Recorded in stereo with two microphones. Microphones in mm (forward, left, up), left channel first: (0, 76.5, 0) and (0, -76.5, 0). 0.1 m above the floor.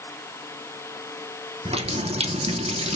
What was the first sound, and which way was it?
A running tap, 40° right (ahead or behind).